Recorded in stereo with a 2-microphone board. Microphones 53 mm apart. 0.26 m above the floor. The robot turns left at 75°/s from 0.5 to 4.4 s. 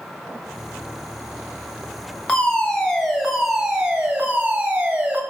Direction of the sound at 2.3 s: 25° left (ahead or behind).